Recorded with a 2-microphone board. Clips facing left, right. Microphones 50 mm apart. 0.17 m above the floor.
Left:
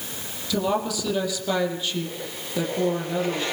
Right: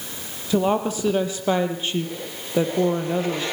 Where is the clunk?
No clunk in this recording.